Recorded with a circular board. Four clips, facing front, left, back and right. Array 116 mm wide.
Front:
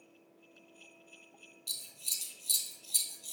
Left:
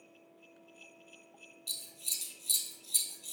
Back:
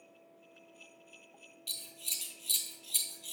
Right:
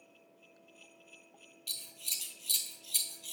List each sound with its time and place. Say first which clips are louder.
1.7 s scissors: even, back 5 dB; 115° right, 1.0 m